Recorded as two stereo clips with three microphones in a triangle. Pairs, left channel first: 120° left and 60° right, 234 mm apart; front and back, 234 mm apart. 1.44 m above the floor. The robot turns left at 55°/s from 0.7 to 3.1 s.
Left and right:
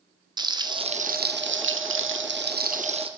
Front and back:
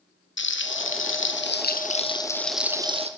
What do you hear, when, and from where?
0.4 s frying: 10° left, 0.6 m; by 3.1 s 120° right, 0.6 m